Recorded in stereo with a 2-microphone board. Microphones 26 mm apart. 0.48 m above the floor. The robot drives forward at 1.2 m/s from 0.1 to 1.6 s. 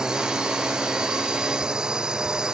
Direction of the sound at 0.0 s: 30° right (ahead or behind).